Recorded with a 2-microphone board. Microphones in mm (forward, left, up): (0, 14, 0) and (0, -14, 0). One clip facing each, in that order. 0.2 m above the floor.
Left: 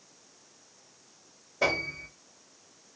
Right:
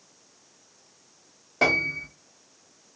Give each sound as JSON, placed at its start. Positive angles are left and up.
{"t": 1.6, "sound": "a piano", "side_deg": -85, "distance_m": 1.7}